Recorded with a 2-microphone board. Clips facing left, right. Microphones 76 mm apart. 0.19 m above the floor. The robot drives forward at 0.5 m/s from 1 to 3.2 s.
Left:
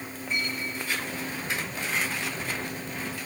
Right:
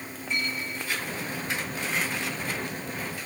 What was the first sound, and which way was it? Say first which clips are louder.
A clink: right 1 dB; 40° left (ahead or behind).